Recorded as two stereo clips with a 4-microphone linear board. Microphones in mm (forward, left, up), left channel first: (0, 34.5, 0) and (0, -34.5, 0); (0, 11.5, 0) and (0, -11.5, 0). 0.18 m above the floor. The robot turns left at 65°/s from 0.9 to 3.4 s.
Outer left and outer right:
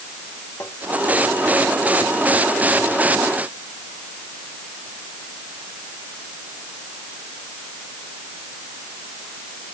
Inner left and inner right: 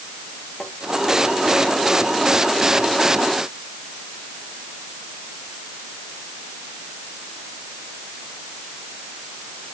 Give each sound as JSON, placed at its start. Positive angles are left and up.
{"t": 0.6, "sound": "tapping", "side_deg": 35}